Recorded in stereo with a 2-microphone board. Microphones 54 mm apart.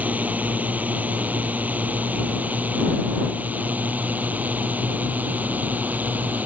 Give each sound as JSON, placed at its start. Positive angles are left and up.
{"t": 0.0, "sound": "a drone", "side_deg": -30}